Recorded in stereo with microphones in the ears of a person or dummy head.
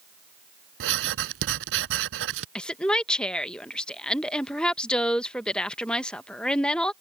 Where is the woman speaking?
5° left (ahead or behind).